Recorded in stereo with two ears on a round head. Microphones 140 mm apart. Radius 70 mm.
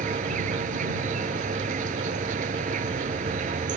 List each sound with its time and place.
0.0 s an insect: 55° right (ahead or behind)